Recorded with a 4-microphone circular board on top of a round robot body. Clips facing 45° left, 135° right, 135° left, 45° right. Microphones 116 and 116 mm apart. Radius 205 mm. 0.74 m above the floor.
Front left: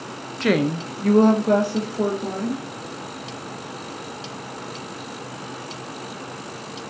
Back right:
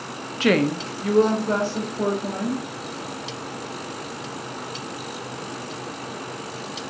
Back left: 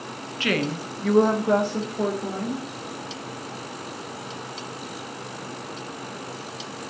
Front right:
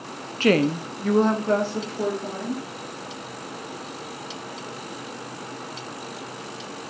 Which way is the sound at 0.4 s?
55° right.